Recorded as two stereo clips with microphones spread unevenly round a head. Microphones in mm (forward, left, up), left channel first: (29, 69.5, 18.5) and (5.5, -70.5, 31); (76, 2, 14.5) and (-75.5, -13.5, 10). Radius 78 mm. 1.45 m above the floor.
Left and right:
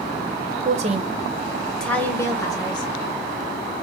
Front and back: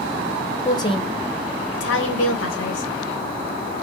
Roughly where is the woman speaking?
Ahead right.